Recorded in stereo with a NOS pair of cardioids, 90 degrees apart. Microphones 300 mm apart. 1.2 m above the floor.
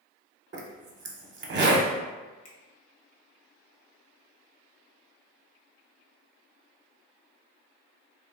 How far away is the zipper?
About 0.6 m.